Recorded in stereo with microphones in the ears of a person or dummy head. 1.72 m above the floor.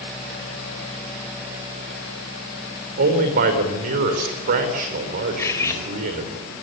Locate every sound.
3.0 s a man speaking: 55° right (ahead or behind), 5 m
5.4 s cutlery clinking: 15° left (ahead or behind), 4 m